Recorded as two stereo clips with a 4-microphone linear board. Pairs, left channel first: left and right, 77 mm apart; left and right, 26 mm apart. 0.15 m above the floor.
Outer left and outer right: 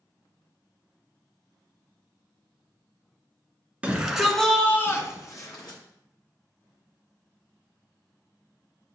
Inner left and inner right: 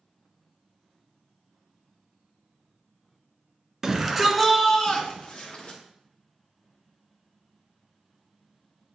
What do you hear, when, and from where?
3.8 s a shout: 20° right (ahead or behind), 1.7 m; by 5.8 s 55° left (ahead or behind), 2.0 m